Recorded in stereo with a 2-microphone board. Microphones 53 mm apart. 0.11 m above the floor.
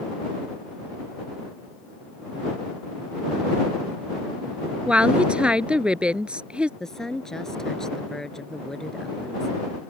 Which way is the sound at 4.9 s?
20° right (ahead or behind).